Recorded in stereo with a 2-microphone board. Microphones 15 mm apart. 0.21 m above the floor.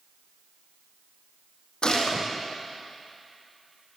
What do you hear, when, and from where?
1.8 s a gunshot: 60° left (ahead or behind), 3.5 m